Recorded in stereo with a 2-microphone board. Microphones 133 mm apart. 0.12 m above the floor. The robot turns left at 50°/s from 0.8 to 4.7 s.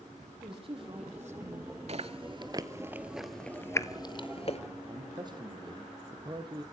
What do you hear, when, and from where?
0.4 s a woman speaking: 45° right, 5 m; by 1.8 s 95° right, 5 m
1.9 s chewing: 55° right (ahead or behind), 0.8 m; by 4.6 s 50° left (ahead or behind), 0.8 m
4.9 s a man speaking: 35° right (ahead or behind), 3 m